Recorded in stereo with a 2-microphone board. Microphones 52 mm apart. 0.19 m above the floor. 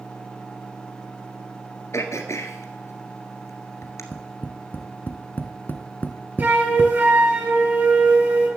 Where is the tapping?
40° left (ahead or behind), 1.3 m.